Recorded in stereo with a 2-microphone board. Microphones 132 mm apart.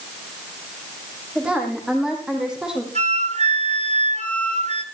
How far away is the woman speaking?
About 6 m.